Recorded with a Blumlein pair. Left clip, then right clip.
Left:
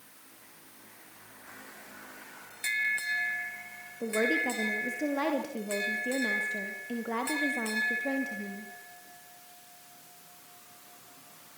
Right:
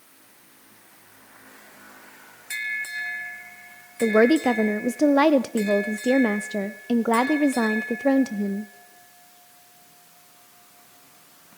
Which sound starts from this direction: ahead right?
A woman speaking, at 4.0 s.